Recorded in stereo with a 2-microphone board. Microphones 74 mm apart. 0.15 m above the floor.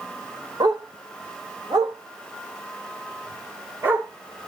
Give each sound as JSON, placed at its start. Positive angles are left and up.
{"t": 0.6, "sound": "a dog barking", "side_deg": -80, "distance_m": 1.7}